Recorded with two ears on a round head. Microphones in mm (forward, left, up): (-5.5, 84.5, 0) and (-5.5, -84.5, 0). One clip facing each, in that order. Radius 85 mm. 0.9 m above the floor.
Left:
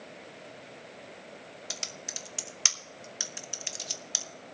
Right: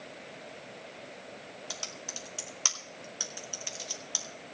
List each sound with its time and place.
1.7 s typing on a keyboard: 25° left (ahead or behind), 0.8 m